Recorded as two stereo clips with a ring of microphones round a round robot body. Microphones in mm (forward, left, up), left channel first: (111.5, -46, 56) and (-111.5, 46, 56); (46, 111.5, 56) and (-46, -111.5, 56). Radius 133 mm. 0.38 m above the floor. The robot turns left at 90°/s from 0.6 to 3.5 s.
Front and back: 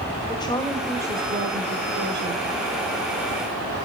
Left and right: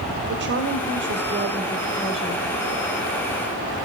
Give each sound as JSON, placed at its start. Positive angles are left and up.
{"t": 0.3, "sound": "a woman speaking", "azimuth_deg": -90, "distance_m": 2.0}